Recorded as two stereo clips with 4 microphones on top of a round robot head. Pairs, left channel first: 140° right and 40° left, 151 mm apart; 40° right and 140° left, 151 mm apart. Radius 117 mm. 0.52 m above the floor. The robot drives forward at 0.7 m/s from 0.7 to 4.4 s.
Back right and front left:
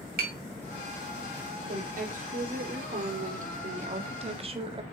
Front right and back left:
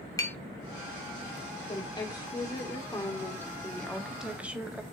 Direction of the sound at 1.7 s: 15° left.